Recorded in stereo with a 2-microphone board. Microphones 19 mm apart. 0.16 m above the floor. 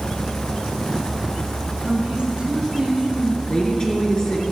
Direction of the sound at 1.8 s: 55° right (ahead or behind).